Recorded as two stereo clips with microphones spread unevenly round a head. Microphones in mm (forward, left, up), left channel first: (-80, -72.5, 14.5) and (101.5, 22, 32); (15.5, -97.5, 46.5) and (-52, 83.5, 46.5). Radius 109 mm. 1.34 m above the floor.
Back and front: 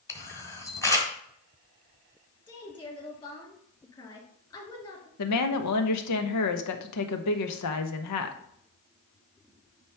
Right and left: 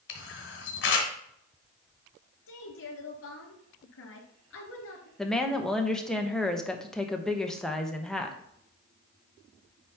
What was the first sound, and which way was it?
A camera shutter, 75° right.